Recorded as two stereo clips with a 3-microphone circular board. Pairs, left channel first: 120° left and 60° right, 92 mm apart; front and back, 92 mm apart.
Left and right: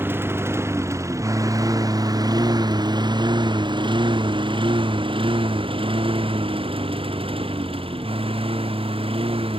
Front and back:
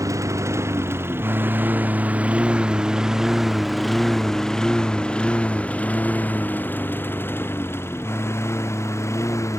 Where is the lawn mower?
125° right; by 9.6 s 60° right.